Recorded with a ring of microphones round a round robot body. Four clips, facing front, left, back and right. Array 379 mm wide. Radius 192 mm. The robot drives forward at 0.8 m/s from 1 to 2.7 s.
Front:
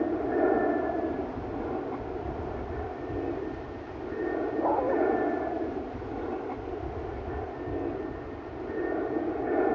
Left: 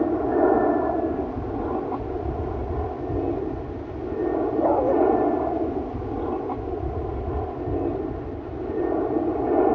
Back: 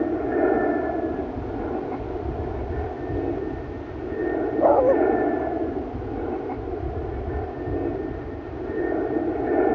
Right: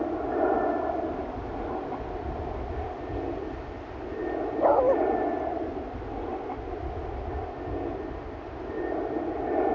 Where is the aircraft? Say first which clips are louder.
Left 6 dB, back 4 dB; 115° left; by 9.8 s 125° left.